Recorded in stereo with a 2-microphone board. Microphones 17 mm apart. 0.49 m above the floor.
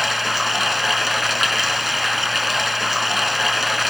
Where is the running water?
5° right (ahead or behind), 0.8 m.